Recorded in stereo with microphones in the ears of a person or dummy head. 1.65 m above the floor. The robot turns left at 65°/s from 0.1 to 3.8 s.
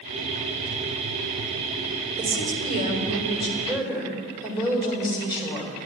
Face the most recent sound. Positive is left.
turn(degrees=-170)